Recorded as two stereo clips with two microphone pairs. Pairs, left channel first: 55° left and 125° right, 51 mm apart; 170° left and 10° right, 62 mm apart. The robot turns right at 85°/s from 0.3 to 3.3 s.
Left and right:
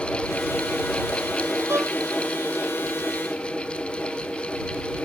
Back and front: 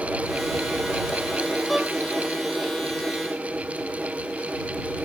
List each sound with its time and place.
1.7 s a violin: 100° right; by 1.9 s 80° right